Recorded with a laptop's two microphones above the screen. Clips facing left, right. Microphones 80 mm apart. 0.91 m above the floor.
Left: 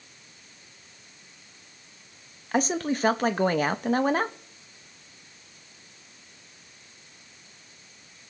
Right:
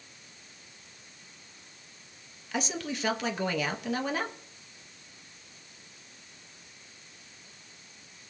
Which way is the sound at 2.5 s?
45° left (ahead or behind).